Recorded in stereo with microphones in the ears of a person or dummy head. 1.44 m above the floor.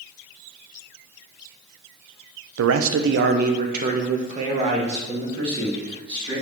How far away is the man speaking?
About 0.7 m.